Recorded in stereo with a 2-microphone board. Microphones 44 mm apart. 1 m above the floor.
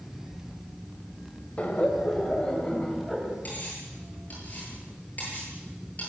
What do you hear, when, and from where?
1.6 s laughter: 35° left (ahead or behind), 4 m; by 3.4 s 5° left (ahead or behind), 5 m
3.5 s cutlery clinking: 40° left (ahead or behind), 9.5 m